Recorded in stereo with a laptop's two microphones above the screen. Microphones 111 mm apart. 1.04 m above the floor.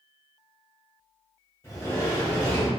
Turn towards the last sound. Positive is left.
turn(degrees=25)  # may be behind; listen again after turning